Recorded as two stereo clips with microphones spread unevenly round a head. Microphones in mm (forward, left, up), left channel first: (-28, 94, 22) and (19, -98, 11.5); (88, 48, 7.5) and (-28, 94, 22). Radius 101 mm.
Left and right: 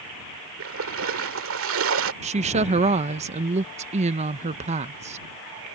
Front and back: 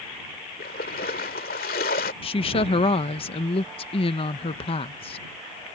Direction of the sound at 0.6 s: 50° right.